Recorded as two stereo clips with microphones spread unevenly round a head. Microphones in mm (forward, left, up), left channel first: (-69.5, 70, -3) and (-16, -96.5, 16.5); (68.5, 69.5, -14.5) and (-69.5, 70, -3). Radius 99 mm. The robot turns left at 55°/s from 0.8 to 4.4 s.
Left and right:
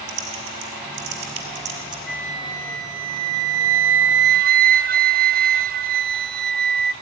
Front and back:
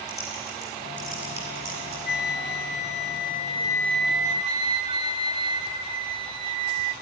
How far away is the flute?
About 0.6 m.